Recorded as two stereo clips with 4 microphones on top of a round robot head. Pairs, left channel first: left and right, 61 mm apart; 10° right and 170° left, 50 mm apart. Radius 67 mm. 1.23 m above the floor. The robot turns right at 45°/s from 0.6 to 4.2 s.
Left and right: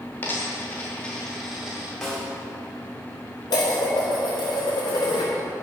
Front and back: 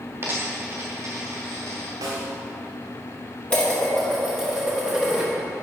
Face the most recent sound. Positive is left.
turn(degrees=90)